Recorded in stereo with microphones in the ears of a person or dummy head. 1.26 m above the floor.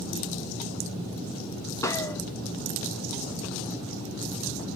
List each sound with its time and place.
1.8 s a gunshot: 15° left (ahead or behind), 0.7 m